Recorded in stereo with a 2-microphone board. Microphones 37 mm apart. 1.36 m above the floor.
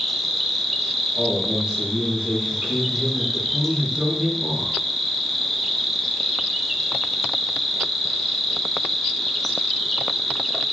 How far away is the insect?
About 0.8 m.